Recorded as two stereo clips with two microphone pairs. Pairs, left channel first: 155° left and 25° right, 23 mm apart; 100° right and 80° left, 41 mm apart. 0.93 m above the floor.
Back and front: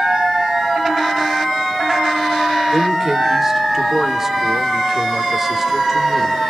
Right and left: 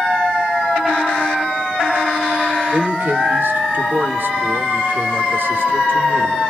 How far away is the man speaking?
About 2 m.